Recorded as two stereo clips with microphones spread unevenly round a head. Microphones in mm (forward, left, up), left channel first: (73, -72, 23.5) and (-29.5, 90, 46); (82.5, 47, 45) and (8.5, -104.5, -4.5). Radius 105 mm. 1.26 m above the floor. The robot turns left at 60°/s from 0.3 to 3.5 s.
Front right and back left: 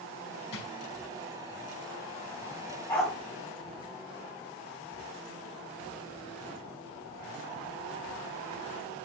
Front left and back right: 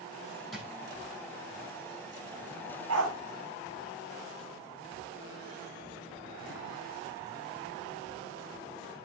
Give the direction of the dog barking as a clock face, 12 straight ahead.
5 o'clock.